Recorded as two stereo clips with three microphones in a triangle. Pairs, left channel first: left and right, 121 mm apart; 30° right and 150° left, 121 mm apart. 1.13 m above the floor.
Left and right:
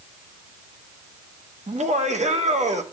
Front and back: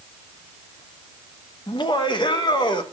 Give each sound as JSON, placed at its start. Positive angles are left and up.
{"t": 1.7, "sound": "laughter", "azimuth_deg": -80, "distance_m": 1.4}